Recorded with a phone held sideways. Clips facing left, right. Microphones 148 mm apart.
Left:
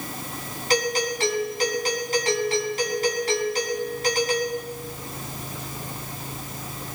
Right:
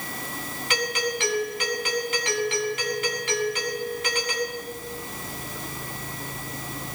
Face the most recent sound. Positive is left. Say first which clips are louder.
# left 4 dB
turn(degrees=40)  # may be behind; listen again after turning